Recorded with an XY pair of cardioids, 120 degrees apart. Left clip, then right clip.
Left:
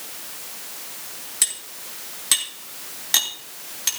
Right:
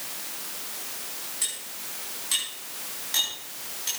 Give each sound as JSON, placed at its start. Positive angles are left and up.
{"t": 1.4, "sound": "cutlery clinking", "azimuth_deg": 60, "distance_m": 3.0}